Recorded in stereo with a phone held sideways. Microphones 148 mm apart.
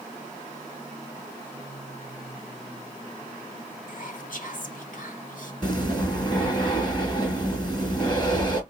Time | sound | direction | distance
3.9 | whispering | 65° left (ahead or behind) | 1.2 m
5.6 | breathing | 30° left (ahead or behind) | 2 m